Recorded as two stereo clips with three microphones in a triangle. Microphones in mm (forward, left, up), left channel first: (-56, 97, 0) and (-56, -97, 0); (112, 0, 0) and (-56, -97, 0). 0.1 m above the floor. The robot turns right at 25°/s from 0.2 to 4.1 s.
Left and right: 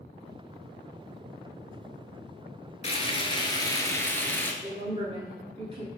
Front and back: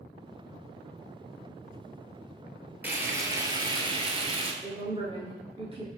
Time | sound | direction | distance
2.8 | frying | 135° left | 0.6 m
4.6 | a woman speaking | 120° right | 1.3 m